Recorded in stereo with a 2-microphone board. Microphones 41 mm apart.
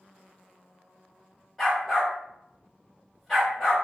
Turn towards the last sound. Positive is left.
turn(degrees=0)  # may be behind; listen again after turning